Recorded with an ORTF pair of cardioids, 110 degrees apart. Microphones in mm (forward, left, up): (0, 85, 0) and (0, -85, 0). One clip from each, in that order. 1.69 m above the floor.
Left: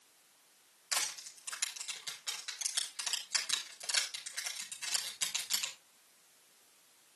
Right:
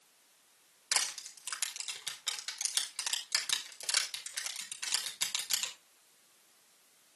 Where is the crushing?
40° right, 5.5 m.